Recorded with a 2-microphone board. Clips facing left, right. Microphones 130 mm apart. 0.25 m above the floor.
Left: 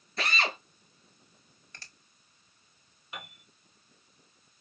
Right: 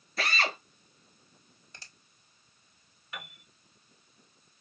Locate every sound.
0.2 s a drill: 5° right (ahead or behind), 2.5 m
1.7 s a finger snap: 15° right (ahead or behind), 1.4 m
3.1 s a piano: 25° left (ahead or behind), 1.4 m